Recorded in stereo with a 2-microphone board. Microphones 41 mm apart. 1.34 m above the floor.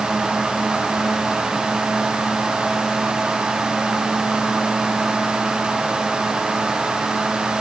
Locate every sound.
Only background noise.